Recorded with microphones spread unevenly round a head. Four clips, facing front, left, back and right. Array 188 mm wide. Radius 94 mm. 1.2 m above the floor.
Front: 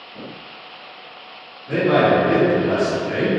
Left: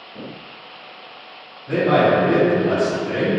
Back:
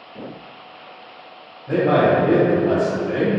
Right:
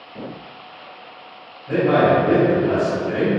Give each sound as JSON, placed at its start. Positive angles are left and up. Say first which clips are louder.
{"t": 1.7, "sound": "a man speaking", "louder": "even, even", "azimuth_deg": 160, "distance_m": 1.0}